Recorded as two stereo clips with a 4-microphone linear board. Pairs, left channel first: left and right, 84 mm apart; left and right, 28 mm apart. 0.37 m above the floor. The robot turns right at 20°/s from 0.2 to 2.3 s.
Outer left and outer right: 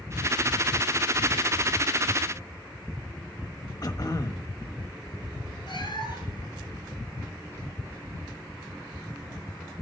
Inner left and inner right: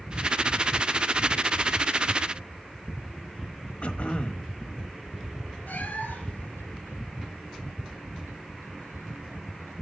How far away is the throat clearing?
About 1.2 m.